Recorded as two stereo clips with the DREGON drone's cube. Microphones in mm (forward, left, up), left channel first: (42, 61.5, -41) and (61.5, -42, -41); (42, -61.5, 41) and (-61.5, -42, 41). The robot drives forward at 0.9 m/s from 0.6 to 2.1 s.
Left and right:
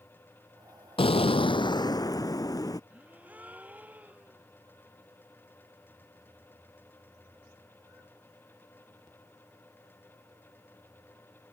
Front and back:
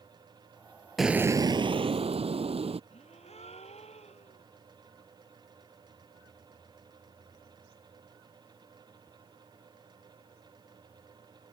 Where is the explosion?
80° left; by 2.8 s 150° left.